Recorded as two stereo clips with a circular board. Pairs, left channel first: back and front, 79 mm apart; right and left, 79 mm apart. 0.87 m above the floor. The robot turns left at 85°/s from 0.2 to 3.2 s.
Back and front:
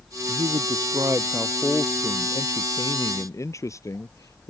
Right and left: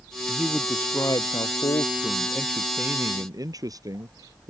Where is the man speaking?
20° left; by 4.5 s 130° left.